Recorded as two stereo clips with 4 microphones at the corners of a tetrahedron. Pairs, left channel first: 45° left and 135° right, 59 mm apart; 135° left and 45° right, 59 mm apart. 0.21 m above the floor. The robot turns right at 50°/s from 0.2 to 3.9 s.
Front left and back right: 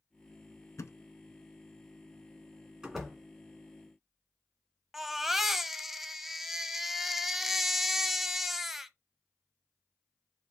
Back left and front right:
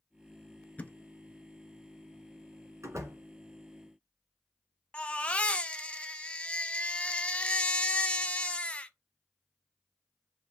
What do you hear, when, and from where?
0.8 s a thud: 70° left, 0.5 m; by 1.0 s 80° left, 0.5 m
2.8 s a door slam: 50° right, 1.9 m; by 3.2 s 35° right, 1.9 m
4.9 s a baby crying: 145° left, 0.5 m